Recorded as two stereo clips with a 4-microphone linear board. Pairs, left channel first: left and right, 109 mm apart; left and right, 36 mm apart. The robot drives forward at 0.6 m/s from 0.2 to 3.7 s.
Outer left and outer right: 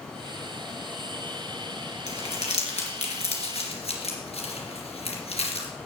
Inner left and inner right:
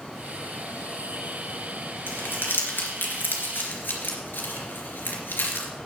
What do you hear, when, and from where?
2.1 s crumpling: 90° left, 2.5 m; by 5.7 s 70° left (ahead or behind), 3 m